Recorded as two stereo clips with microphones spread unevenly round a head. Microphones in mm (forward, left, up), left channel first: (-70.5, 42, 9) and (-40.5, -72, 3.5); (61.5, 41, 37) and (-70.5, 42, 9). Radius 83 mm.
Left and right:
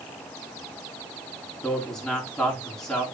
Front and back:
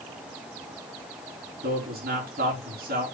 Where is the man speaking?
170° right, 4 m.